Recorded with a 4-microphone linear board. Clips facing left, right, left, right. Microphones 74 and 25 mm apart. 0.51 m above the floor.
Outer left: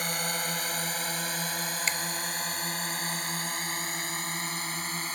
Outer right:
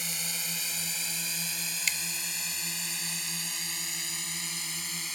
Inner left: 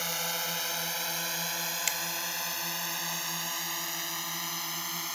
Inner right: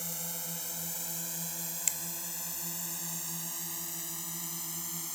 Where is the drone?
60° left (ahead or behind); by 5.2 s 45° left (ahead or behind).